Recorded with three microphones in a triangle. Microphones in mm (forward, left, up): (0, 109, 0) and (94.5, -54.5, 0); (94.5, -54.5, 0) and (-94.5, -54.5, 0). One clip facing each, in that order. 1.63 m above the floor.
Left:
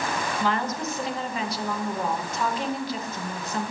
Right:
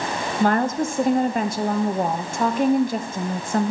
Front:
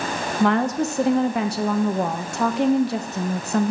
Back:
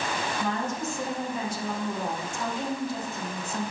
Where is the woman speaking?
20° right, 0.8 m.